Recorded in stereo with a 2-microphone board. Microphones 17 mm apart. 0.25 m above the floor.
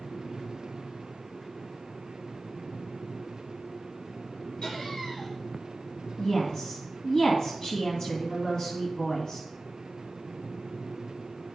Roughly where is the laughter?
Left.